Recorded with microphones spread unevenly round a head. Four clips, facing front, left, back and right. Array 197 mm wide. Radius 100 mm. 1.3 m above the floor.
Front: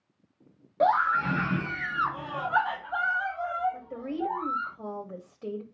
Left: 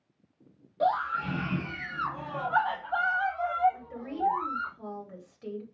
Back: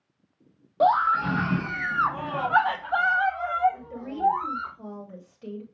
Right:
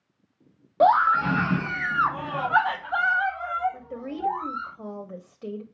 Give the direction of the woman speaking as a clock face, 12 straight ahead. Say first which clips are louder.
Right 2 dB, front 1 dB; 2 o'clock.